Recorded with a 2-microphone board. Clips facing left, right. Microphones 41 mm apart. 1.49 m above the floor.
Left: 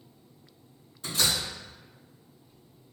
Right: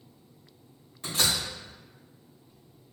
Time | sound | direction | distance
1.0 | a door slam | 75° right (ahead or behind) | 2.0 m